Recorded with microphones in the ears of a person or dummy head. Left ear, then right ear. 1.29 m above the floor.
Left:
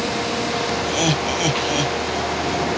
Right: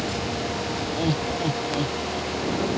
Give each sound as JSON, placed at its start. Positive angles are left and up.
{"t": 0.8, "sound": "laughter", "side_deg": 65}